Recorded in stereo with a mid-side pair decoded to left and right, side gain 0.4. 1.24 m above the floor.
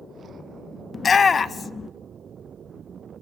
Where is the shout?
45° left, 1.0 m.